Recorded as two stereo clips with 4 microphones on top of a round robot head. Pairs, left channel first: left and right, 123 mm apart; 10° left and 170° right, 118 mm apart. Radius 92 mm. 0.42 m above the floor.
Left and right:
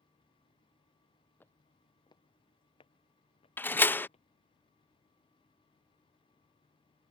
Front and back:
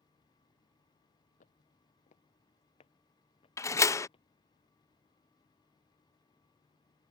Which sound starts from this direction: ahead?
Footsteps, at 1.4 s.